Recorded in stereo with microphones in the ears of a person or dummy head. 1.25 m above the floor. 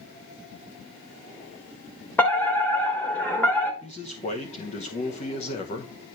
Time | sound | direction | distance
2.2 | a fire alarm | 5° left (ahead or behind) | 1.2 m
3.8 | a man speaking | 35° left (ahead or behind) | 1.1 m